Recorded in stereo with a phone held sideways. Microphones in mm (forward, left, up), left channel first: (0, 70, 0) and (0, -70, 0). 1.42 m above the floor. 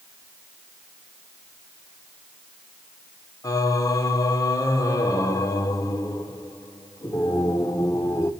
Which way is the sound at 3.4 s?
25° left (ahead or behind).